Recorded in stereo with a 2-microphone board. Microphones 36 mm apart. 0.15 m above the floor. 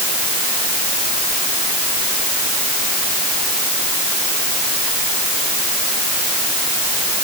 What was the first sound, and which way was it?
Only background noise.